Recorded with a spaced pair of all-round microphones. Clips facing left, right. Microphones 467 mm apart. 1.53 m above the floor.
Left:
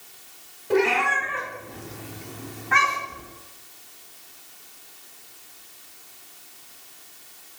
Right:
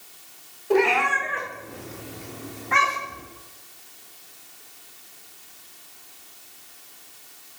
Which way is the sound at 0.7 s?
35° left (ahead or behind).